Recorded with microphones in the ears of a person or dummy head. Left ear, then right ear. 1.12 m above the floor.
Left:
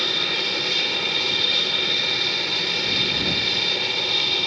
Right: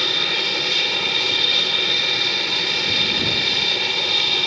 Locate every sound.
0.0 s an aircraft: 5° right (ahead or behind)